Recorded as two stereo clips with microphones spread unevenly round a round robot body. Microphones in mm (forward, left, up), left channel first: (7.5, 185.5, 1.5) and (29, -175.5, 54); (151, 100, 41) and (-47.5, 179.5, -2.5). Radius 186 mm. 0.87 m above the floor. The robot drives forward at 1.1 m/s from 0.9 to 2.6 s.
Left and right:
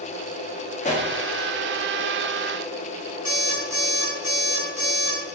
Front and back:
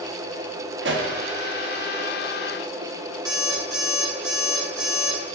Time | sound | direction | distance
0.8 | a pop | 160° left | 1.5 m
3.2 | an alarm clock | 175° right | 5 m